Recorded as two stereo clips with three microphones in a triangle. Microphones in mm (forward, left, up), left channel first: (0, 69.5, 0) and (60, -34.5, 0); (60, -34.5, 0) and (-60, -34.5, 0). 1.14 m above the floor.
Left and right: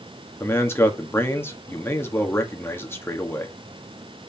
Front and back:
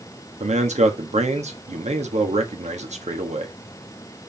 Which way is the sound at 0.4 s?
170° right.